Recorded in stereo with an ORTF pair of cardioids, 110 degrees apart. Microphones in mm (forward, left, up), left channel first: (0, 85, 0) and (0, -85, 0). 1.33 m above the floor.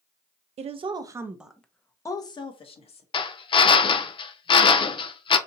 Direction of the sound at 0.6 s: 40° right.